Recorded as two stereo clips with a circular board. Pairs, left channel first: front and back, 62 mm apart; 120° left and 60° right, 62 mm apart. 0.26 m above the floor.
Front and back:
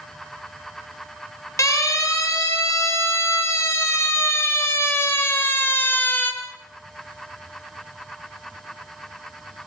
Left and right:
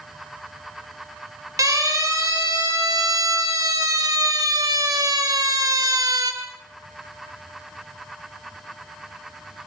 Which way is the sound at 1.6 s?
35° right.